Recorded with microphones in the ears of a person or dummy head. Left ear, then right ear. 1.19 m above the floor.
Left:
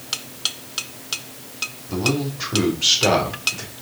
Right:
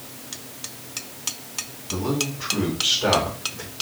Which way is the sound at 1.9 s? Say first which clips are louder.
Left 2 dB; 55° left (ahead or behind).